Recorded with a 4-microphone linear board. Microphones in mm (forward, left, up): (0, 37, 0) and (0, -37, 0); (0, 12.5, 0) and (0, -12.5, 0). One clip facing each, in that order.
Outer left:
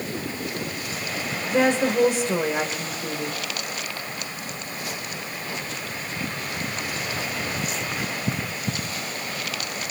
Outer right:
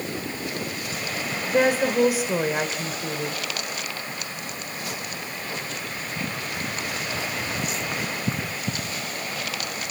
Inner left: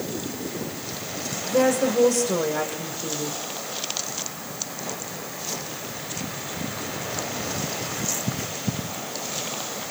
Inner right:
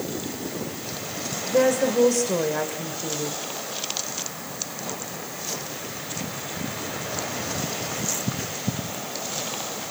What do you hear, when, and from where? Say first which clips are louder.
1.5 s a woman speaking: even, even; 5° right (ahead or behind), 2 m